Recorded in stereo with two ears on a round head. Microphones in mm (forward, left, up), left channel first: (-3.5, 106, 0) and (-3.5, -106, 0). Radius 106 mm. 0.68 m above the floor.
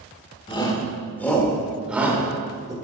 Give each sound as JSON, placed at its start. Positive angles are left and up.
{"t": 0.5, "sound": "a shout", "side_deg": 20, "distance_m": 1.6}